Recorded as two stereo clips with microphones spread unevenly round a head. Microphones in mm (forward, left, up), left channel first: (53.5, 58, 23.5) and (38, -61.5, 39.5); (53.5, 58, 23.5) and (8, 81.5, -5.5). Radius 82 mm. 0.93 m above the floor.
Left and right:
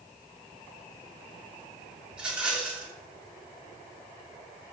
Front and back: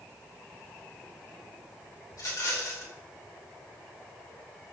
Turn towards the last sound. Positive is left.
turn(degrees=-15)